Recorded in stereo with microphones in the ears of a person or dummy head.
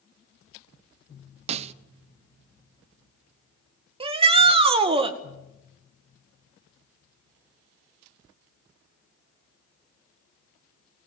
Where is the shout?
30° right (ahead or behind), 2 m.